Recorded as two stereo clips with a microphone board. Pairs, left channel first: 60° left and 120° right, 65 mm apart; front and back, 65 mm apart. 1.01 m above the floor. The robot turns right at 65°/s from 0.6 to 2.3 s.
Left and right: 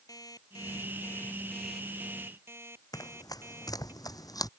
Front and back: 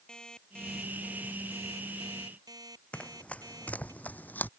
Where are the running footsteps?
70° left; by 4.5 s 60° left.